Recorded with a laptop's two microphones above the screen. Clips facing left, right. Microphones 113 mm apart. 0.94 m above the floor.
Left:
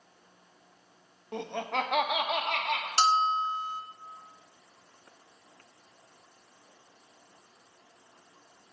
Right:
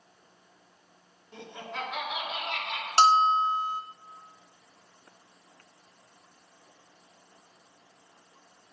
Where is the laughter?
65° left (ahead or behind), 0.9 m; by 2.9 s 70° left (ahead or behind), 2.0 m.